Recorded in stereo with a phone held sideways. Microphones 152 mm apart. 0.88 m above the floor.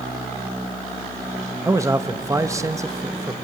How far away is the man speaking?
About 0.9 m.